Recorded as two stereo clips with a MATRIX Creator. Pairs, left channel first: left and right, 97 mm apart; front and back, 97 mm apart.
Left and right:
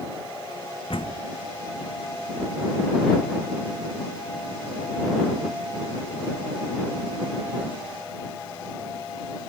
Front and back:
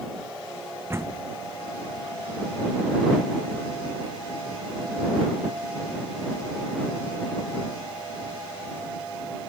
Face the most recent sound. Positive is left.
turn(degrees=115)